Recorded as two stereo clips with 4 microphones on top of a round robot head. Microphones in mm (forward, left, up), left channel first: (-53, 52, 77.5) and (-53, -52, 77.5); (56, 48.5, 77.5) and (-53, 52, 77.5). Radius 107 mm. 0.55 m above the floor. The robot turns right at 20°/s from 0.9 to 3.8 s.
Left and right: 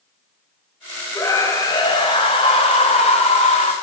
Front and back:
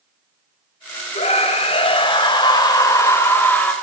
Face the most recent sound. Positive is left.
turn(degrees=75)